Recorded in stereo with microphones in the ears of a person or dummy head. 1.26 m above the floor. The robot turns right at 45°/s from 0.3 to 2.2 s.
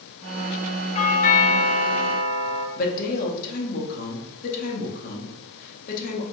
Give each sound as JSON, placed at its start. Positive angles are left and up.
{"t": 0.9, "sound": "a doorbell", "azimuth_deg": 60, "distance_m": 0.6}
{"t": 2.8, "sound": "a woman speaking", "side_deg": 50, "distance_m": 1.0}